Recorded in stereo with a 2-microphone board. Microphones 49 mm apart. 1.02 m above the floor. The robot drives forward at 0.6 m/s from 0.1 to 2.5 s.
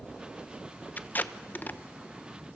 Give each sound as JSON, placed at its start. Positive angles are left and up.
{"t": 1.0, "sound": "tape being pulled", "side_deg": 40, "distance_m": 0.8}